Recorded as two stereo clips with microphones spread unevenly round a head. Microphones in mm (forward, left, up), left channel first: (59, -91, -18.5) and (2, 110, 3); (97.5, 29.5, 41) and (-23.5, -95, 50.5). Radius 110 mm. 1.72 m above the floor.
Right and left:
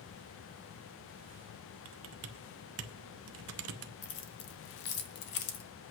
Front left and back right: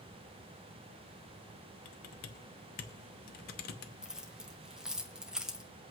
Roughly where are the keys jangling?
Ahead right.